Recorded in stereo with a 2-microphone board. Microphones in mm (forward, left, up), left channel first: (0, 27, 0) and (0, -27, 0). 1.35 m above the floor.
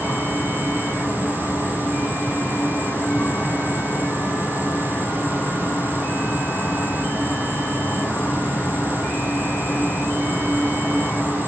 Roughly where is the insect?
Left.